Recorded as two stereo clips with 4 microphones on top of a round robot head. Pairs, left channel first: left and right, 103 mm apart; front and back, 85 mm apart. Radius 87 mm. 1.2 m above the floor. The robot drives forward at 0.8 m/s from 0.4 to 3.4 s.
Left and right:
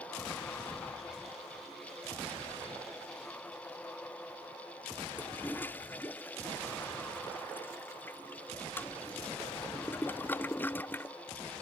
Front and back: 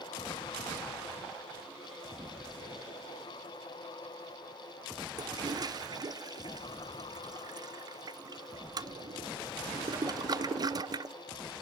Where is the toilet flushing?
155° left.